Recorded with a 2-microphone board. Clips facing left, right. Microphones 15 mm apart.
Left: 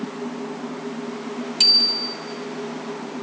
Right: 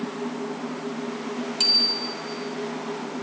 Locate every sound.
1.6 s a bicycle bell: 15° left (ahead or behind), 3 m